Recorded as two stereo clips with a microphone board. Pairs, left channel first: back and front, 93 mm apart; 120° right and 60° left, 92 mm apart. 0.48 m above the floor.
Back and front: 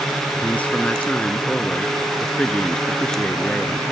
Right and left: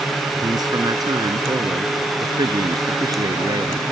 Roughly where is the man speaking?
Left.